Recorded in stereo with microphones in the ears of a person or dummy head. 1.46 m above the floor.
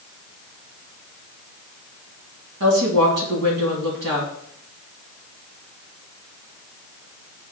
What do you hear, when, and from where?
2.6 s a woman speaking: 65° right (ahead or behind), 2.5 m